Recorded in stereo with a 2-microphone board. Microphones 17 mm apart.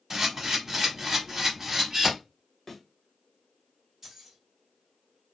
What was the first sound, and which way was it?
A camera shutter, 20° right (ahead or behind).